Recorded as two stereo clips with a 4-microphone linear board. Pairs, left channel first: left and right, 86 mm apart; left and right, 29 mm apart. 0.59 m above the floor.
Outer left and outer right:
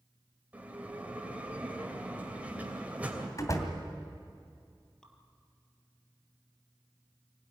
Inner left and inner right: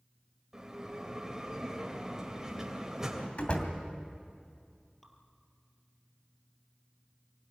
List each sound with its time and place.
0.5 s a bell: 15° right (ahead or behind), 3 m
3.4 s a door slam: 40° left (ahead or behind), 2.5 m
5.0 s dripping: 10° left (ahead or behind), 2.5 m